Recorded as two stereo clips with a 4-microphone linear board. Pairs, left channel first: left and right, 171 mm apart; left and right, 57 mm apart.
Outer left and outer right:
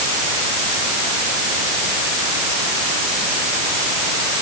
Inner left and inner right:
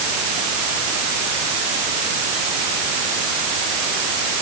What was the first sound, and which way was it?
Only background noise.